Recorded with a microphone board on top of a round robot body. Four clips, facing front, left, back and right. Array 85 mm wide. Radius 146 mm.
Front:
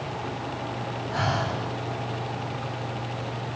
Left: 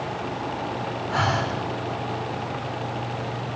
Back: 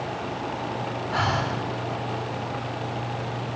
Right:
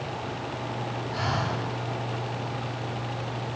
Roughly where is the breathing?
Behind left.